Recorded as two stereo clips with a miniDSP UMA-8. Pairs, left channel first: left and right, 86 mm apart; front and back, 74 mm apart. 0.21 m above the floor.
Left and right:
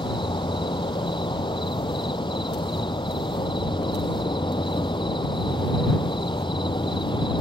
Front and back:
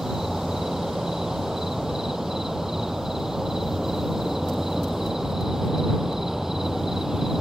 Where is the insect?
95° left.